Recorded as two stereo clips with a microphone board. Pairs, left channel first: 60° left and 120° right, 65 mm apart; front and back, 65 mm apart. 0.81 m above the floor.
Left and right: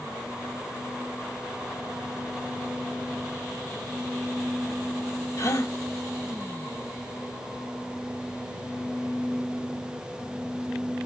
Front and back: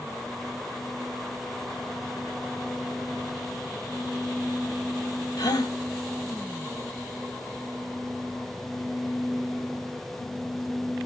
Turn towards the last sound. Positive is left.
turn(degrees=20)